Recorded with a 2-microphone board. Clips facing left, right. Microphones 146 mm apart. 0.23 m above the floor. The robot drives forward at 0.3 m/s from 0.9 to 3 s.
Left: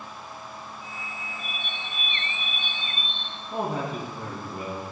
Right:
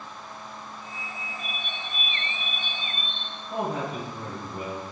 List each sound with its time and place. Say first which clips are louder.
1.4 s a bird: right 1 dB; 50° right (ahead or behind), 2.5 m; by 3.4 s 45° right (ahead or behind), 3 m
3.5 s a man speaking: even; 70° right (ahead or behind), 3 m